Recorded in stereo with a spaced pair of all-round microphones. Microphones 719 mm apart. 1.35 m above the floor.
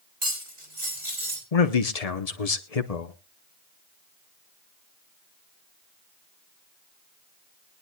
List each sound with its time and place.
0.2 s cutlery clinking: 45° right (ahead or behind), 3 m
1.5 s a man speaking: 55° left (ahead or behind), 1.0 m